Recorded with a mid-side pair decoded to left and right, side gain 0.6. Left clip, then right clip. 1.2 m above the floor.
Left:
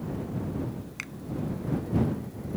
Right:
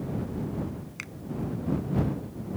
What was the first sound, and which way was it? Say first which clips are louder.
A finger snap: left 2 dB; 10° left.